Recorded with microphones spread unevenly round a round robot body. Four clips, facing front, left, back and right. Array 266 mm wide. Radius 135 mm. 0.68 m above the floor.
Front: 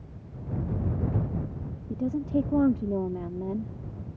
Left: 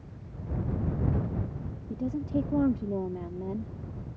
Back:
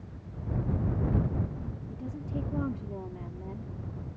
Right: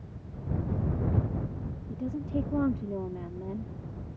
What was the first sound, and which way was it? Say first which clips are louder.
A woman speaking: left 3 dB, front 12 dB; 20° left.